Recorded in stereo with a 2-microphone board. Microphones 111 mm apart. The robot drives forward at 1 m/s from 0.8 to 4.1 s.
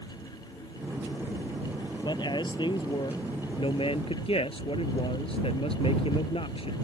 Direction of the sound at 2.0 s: 40° left (ahead or behind).